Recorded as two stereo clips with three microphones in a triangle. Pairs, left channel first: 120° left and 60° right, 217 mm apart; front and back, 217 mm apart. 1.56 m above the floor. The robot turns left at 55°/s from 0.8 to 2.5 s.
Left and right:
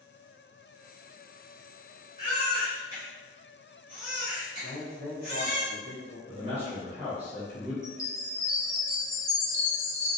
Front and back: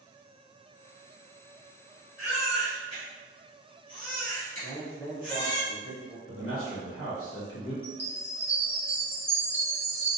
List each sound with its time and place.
2.2 s a baby crying: straight ahead, 1.4 m; by 5.6 s 20° right, 1.4 m
4.6 s a man speaking: 80° right, 0.9 m
6.3 s a man speaking: 5° left, 1.0 m
7.8 s a chime: 100° left, 0.9 m